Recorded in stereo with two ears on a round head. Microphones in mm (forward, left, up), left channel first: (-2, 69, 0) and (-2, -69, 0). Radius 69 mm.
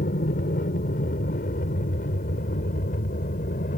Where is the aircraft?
55° left (ahead or behind).